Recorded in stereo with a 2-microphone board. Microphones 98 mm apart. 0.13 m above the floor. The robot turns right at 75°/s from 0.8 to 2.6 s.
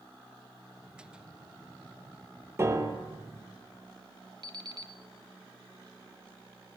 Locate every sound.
2.6 s a piano: 25° right (ahead or behind), 3.5 m
4.4 s an alarm clock: 45° right (ahead or behind), 1.3 m